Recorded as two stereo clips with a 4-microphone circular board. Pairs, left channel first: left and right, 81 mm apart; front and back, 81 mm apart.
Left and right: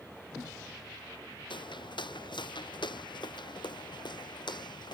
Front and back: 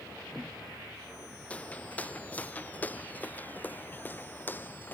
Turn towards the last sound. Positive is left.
turn(degrees=65)